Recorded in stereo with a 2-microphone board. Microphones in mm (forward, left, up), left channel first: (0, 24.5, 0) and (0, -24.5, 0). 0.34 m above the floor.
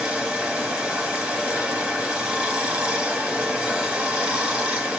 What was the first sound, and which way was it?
Running water, 20° right (ahead or behind).